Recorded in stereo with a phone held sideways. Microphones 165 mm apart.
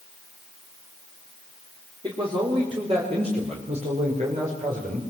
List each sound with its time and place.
2.0 s a man speaking: 30° right (ahead or behind), 3.5 m; by 5.0 s 55° right (ahead or behind), 5.5 m